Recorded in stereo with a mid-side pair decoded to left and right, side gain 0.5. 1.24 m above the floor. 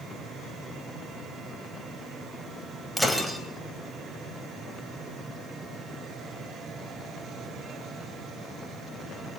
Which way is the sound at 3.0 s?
5° right.